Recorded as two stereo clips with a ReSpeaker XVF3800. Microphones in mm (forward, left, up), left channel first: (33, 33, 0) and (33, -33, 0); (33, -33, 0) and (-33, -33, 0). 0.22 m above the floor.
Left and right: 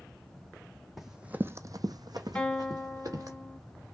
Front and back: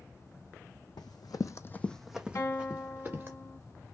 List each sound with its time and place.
1.0 s running footsteps: 5° right, 0.7 m; by 3.4 s 125° right, 1.4 m
2.4 s a guitar: 20° left, 0.8 m